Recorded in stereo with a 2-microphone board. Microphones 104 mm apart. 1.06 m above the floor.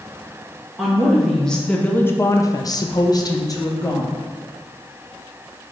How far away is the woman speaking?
About 1.3 m.